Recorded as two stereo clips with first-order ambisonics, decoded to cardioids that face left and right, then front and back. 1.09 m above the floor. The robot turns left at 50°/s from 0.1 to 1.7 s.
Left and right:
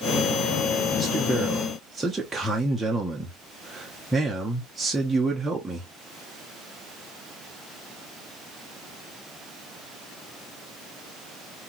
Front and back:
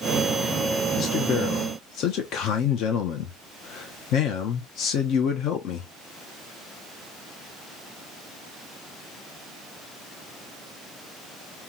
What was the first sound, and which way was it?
A man speaking, 30° left.